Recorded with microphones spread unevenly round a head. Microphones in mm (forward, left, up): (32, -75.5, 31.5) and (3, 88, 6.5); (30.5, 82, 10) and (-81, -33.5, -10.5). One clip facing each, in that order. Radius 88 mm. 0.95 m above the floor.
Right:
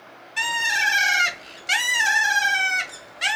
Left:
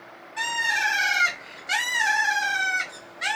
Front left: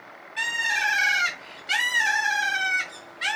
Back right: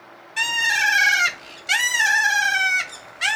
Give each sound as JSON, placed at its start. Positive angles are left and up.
{"t": 0.4, "sound": "a bird", "azimuth_deg": -115, "distance_m": 0.7}